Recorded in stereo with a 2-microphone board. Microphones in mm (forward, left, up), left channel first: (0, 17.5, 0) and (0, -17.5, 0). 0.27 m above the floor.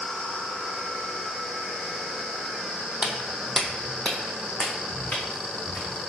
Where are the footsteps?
30° right (ahead or behind), 0.6 m; by 5.9 s 60° left (ahead or behind), 1.9 m.